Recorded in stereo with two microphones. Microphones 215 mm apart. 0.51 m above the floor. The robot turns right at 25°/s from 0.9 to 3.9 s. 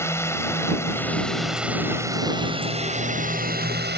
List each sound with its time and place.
0.0 s a drone: 165° left; by 4.0 s 120° right